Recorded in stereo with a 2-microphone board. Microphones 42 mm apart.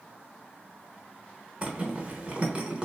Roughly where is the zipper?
Right.